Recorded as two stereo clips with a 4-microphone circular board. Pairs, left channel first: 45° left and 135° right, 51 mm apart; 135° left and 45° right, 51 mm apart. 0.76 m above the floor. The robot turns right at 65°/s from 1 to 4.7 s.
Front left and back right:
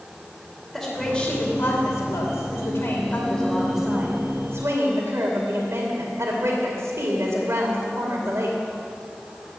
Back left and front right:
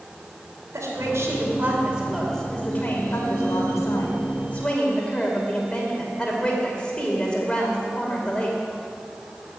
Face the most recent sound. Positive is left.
turn(degrees=-155)